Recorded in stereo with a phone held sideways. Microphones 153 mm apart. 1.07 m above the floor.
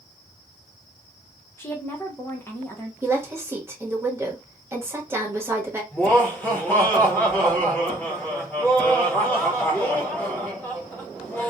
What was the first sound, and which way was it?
A woman speaking, 15° left (ahead or behind).